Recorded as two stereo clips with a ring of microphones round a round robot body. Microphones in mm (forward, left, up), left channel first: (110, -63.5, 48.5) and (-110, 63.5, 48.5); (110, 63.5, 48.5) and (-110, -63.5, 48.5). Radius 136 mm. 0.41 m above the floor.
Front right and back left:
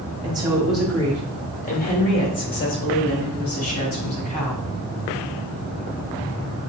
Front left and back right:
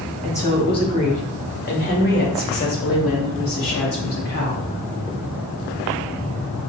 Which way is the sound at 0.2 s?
100° left.